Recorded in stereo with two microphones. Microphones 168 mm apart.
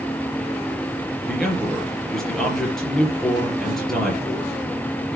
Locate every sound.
1.2 s a man speaking: centre (ahead or behind), 4.5 m